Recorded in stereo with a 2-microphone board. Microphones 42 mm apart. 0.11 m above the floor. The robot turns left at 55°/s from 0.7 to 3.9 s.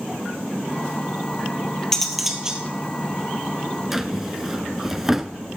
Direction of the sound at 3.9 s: 10° right (ahead or behind).